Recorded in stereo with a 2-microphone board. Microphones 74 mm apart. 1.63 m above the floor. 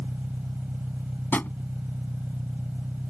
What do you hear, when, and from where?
0.0 s an engine running: 20° right (ahead or behind)
1.3 s a drawer: 25° left (ahead or behind)